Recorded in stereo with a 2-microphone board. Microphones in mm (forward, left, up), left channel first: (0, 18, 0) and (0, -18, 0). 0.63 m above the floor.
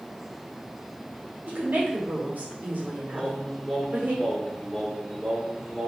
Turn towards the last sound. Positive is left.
turn(degrees=-15)  # may be behind; listen again after turning